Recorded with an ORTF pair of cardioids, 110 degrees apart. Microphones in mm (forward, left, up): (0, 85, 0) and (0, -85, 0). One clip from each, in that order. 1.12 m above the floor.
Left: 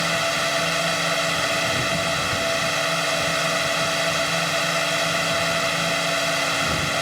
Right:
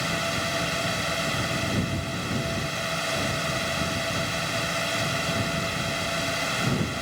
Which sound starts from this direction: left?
A drone, at 0.0 s.